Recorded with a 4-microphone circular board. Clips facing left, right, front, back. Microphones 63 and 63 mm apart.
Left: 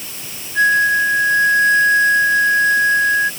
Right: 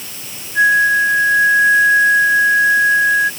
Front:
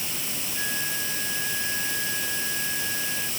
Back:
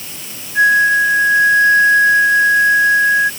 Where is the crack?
No crack in this recording.